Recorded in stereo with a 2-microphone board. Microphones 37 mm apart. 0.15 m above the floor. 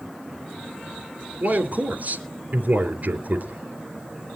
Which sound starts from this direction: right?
A man speaking, at 1.4 s.